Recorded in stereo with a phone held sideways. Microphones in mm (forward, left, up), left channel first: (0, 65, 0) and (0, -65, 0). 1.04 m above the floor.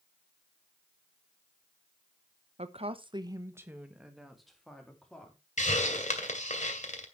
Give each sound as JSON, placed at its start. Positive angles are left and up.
{"t": 2.6, "sound": "a woman speaking", "side_deg": -55, "distance_m": 1.0}
{"t": 5.6, "sound": "a hiss", "side_deg": 75, "distance_m": 2.0}